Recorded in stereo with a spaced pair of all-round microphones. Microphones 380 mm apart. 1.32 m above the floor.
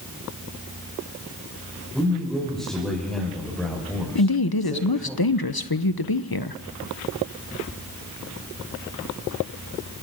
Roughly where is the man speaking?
Centre.